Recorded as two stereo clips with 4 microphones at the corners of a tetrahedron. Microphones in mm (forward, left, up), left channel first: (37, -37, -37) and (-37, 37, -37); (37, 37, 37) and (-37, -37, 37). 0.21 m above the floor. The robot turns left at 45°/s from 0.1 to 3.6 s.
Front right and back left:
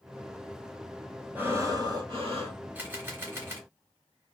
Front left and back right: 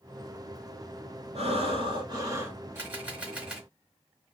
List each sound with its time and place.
1.4 s breathing: 150° right, 0.7 m; by 2.6 s 155° left, 0.7 m
2.8 s a camera shutter: 175° right, 1.1 m; by 3.7 s 150° left, 1.1 m